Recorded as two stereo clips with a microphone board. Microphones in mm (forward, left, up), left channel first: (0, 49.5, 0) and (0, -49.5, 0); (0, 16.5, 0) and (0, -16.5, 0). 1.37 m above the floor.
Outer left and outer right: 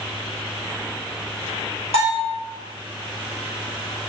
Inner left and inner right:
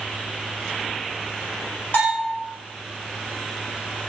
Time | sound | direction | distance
1.9 | a bell | 80° left | 1.9 m